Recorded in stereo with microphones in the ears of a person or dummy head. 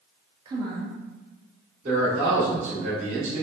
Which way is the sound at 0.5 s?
30° right (ahead or behind).